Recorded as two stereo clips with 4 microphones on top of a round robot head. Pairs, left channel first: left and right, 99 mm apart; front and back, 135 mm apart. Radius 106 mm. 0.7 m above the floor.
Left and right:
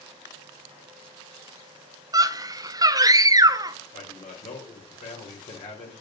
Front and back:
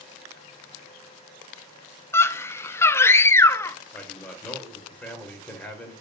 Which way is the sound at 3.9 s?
75° left.